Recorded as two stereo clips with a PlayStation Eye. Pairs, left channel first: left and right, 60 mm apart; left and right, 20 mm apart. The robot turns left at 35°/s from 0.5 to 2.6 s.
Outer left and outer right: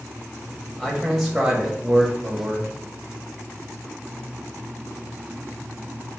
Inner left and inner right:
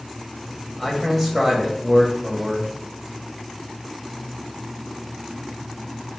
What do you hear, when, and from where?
0.8 s a man speaking: 20° left, 1.2 m; by 2.7 s 45° right, 1.2 m